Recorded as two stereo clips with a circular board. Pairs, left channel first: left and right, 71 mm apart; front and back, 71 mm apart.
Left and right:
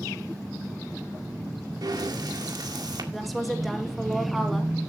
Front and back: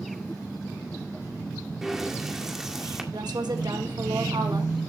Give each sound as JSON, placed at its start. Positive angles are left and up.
{"t": 1.8, "sound": "breathing", "azimuth_deg": -95, "distance_m": 1.9}
{"t": 3.1, "sound": "a woman speaking", "azimuth_deg": 180, "distance_m": 2.5}